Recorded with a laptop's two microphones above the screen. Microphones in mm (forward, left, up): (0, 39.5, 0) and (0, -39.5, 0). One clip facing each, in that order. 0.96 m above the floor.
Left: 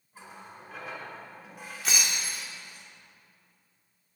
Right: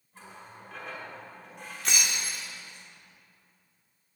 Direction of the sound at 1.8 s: Centre (ahead or behind).